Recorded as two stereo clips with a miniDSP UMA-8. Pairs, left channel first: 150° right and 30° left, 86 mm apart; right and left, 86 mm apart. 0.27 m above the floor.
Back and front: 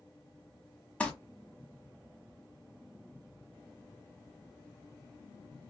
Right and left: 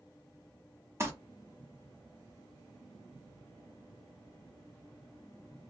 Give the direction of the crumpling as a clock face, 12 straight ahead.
7 o'clock.